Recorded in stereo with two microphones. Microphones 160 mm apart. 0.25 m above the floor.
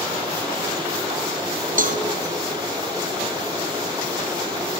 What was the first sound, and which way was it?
A cowbell, 60° right (ahead or behind).